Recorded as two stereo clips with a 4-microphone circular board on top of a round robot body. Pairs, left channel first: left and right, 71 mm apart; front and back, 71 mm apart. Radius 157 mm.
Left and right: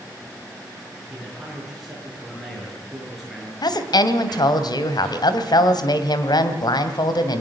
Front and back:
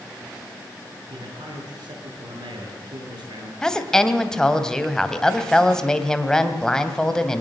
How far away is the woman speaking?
About 2.5 m.